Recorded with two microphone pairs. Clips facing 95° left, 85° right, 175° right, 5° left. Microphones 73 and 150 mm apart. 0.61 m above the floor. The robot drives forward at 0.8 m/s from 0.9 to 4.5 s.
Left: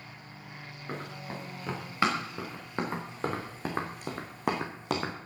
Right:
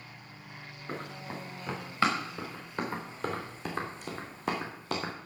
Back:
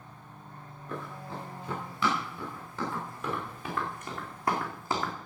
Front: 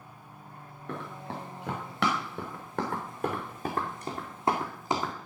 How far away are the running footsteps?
About 5.5 m.